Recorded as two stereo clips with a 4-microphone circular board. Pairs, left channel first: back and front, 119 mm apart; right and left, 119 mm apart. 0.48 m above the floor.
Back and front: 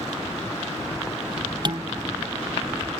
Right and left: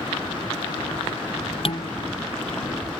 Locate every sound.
1.6 s dishes clattering: 50° right